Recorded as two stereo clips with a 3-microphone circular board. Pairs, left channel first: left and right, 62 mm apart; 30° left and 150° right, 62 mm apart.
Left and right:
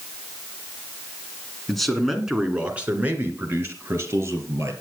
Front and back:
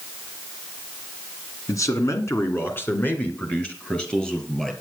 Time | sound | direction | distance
1.7 | a man speaking | 5° left | 1.9 m